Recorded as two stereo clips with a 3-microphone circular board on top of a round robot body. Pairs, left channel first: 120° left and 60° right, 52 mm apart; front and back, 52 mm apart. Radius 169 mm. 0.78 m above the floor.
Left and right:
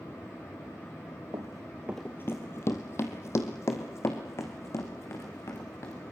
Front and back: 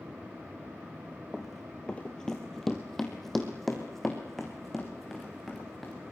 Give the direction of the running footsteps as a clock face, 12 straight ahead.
3 o'clock.